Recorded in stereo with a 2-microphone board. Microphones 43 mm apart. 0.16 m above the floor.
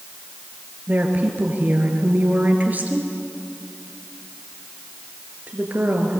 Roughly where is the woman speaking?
Right.